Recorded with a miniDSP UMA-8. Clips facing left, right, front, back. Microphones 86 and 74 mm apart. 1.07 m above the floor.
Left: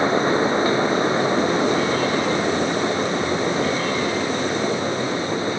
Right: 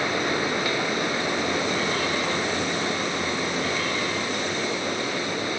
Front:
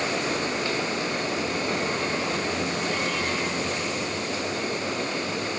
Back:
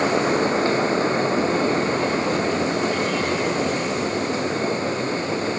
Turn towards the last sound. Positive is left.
No sound to turn to.